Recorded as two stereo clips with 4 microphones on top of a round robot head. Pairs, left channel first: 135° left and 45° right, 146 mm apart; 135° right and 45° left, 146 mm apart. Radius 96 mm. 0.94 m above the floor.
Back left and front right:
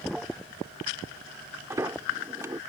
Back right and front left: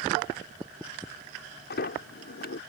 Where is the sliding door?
115° right.